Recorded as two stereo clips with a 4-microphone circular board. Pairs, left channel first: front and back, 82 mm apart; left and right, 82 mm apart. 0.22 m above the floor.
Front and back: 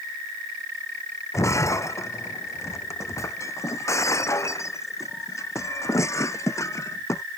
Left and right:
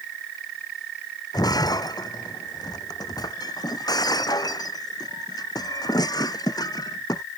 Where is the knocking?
I don't hear knocking.